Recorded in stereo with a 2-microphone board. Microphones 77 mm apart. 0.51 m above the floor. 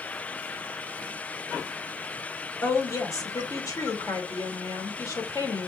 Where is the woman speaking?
50° left (ahead or behind), 1.8 m.